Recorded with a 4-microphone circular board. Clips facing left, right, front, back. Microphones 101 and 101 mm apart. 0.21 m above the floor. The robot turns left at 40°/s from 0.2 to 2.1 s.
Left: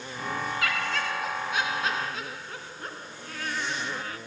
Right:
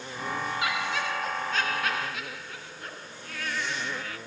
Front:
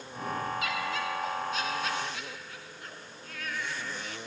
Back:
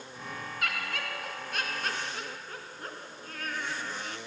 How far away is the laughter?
About 2.5 m.